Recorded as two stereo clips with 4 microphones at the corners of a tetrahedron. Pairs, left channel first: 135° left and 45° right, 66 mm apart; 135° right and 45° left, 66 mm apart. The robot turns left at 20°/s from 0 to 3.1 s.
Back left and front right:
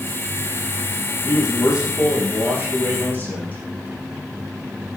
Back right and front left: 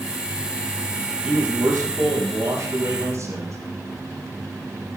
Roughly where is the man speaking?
Behind left.